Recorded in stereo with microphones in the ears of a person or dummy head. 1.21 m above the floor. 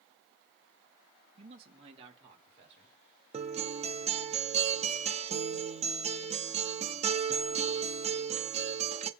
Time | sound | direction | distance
1.4 | a man speaking | 30° right (ahead or behind) | 1.1 m
3.3 | a guitar | 35° right (ahead or behind) | 0.8 m